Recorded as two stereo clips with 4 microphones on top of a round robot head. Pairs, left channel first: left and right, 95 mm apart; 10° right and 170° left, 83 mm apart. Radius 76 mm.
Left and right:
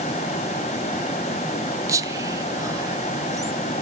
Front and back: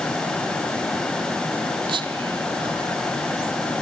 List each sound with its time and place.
1.9 s whispering: 145° right, 1.7 m